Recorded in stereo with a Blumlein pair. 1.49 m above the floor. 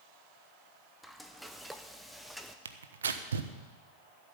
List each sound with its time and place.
1.0 s frying: straight ahead, 1.0 m
2.6 s tearing paper: 65° right, 1.0 m